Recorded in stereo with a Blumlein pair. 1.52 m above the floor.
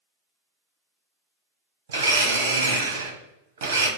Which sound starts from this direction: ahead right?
A blender, at 1.9 s.